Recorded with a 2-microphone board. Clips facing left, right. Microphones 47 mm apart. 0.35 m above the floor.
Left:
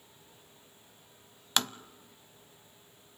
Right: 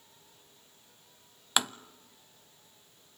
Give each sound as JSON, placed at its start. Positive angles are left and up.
{"t": 1.6, "sound": "tapping", "side_deg": -10, "distance_m": 0.5}